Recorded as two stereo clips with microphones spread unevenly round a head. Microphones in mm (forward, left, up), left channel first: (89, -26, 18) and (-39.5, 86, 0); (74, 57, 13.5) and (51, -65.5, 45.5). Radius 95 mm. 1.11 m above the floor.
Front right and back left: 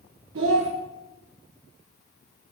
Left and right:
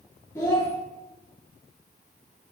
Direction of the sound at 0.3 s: 150° left.